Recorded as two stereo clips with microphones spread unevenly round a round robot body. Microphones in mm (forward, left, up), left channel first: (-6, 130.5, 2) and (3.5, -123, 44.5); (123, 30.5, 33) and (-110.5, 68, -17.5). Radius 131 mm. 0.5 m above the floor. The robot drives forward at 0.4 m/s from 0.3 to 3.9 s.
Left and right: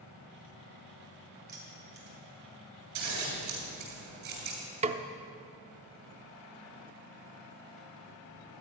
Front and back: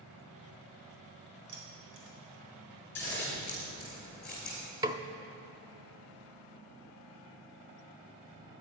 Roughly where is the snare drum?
Behind right.